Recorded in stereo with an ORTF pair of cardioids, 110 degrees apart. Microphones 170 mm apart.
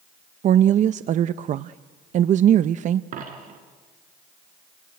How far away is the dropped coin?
About 4 m.